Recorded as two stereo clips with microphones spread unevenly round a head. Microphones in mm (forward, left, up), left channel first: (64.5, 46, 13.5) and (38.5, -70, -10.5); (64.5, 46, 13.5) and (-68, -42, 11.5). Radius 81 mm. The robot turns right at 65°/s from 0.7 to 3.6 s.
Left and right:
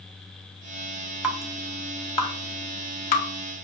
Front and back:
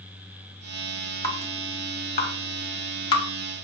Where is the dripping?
35° right, 1.0 m; by 3.3 s 100° left, 1.0 m.